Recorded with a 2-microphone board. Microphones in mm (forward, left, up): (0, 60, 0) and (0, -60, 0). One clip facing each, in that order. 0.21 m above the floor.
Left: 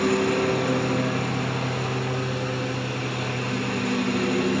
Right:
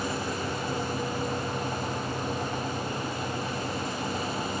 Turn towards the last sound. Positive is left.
turn(degrees=65)  # may be behind; listen again after turning